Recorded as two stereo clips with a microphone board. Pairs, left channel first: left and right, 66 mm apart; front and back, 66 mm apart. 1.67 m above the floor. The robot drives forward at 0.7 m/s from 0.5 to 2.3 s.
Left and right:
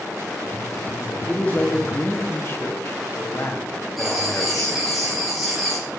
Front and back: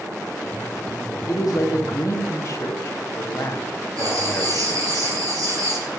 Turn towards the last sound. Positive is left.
turn(degrees=-175)